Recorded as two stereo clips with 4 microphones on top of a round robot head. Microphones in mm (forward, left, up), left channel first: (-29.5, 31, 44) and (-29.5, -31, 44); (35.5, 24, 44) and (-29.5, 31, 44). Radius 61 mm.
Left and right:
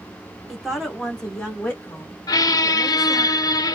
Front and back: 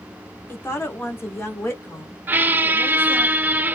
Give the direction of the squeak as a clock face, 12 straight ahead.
8 o'clock.